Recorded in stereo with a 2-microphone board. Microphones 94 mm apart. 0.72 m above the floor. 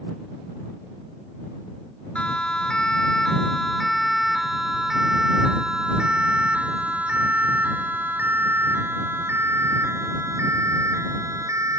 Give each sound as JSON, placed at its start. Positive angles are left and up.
{"t": 2.1, "sound": "a siren", "side_deg": 10}